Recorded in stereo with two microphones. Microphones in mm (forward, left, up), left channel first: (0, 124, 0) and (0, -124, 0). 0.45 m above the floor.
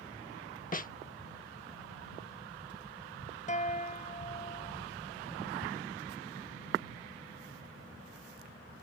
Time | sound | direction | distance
0.7 | a snare drum | 30° left (ahead or behind) | ?
3.5 | a guitar | 30° left (ahead or behind) | ?